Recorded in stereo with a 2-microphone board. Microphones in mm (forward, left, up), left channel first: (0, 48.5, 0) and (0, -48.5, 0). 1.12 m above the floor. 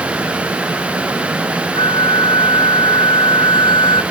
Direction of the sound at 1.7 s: 60° left (ahead or behind).